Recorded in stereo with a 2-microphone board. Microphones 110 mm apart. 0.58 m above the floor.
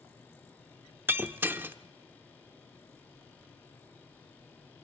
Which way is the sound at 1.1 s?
20° right (ahead or behind).